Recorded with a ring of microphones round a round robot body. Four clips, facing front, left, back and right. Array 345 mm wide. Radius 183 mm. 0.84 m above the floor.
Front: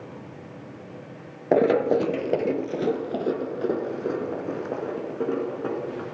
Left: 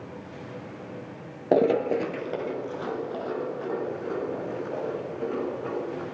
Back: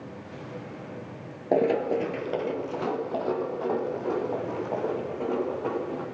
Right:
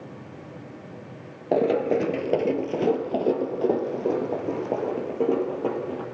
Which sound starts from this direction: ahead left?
Running footsteps, at 1.5 s.